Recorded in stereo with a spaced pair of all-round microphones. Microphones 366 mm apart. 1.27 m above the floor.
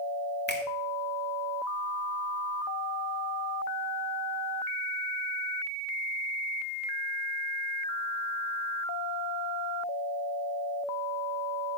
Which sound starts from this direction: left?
A finger snap, at 0.5 s.